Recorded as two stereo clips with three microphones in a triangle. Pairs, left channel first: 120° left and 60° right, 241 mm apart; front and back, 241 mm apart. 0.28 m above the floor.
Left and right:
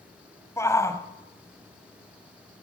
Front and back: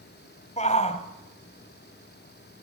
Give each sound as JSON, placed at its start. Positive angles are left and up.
{"t": 0.6, "sound": "a shout", "azimuth_deg": 50, "distance_m": 1.9}